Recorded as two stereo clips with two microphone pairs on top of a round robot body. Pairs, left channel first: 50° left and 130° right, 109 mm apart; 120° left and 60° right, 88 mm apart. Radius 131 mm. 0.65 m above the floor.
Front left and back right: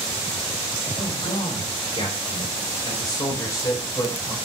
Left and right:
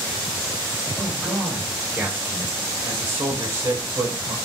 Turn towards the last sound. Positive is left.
turn(degrees=-15)